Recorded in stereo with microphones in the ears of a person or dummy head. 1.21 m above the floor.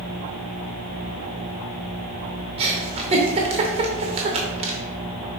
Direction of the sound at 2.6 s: 30° right (ahead or behind).